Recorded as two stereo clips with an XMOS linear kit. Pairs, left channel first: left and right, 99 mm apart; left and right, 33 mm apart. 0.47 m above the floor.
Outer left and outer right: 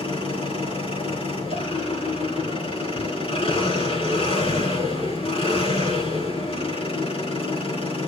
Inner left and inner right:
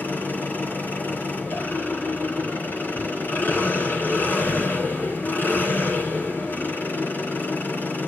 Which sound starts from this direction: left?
An engine running, at 0.0 s.